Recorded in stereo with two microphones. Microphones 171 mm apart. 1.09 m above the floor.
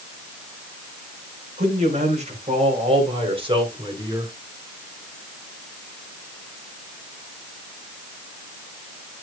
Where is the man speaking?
45° right (ahead or behind), 4 m; by 4.3 s 25° right (ahead or behind), 3 m.